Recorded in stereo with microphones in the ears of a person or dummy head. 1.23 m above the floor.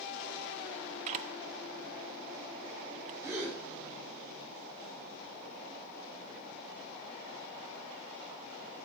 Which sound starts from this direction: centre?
A gasp, at 3.2 s.